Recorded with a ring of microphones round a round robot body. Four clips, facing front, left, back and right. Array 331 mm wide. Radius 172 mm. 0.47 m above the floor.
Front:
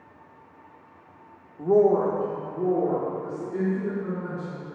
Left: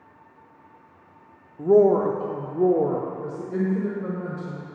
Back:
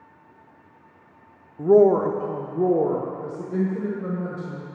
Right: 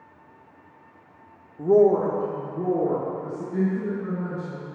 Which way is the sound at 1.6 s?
175° left.